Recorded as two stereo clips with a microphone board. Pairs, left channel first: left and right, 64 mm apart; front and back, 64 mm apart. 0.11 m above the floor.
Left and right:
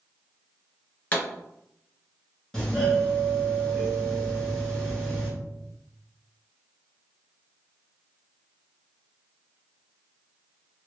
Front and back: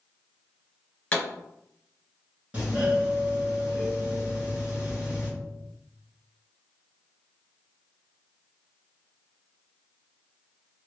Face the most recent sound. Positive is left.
turn(degrees=160)